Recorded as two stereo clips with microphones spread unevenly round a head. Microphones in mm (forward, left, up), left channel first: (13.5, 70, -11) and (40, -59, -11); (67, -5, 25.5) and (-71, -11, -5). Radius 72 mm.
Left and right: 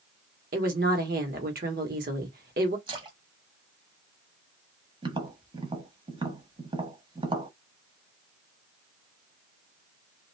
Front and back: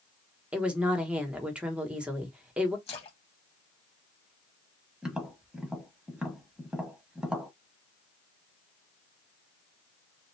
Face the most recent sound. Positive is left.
turn(degrees=-75)